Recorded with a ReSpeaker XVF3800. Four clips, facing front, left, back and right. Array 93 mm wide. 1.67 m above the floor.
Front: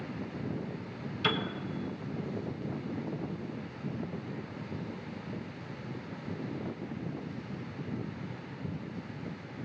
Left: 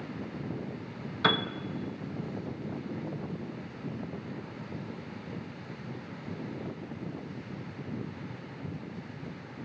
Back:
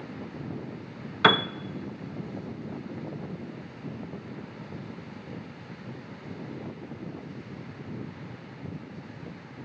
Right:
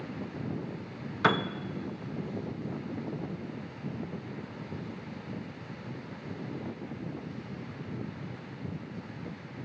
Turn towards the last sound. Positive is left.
turn(degrees=-170)